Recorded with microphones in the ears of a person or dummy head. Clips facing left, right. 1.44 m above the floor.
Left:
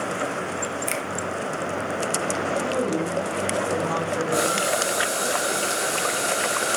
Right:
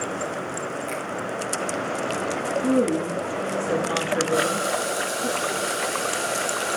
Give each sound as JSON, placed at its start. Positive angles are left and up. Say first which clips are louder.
{"t": 0.9, "sound": "a finger snap", "louder": "left 1 dB", "side_deg": 65, "distance_m": 1.7}
{"t": 2.6, "sound": "a woman speaking", "louder": "right 7 dB", "side_deg": -35, "distance_m": 2.0}
{"t": 4.3, "sound": "boiling", "louder": "even", "side_deg": 25, "distance_m": 5.5}